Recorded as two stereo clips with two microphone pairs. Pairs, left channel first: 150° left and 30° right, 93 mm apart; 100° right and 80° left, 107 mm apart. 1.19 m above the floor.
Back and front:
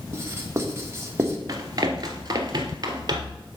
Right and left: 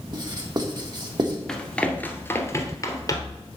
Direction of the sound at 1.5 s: 15° right.